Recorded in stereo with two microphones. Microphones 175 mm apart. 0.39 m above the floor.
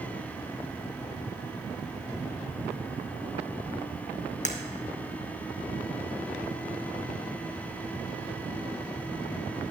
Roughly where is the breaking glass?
Left.